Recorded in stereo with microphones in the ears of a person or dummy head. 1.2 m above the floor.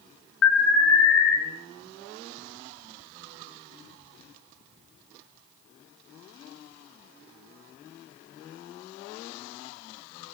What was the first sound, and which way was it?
An alarm, 70° left (ahead or behind).